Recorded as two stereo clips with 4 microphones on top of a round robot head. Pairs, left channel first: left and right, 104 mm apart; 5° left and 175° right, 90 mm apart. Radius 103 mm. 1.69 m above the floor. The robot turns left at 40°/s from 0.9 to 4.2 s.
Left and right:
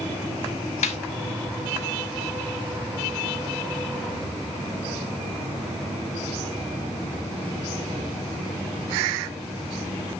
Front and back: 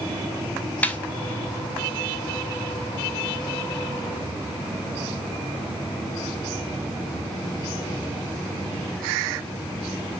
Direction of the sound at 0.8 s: 80° left.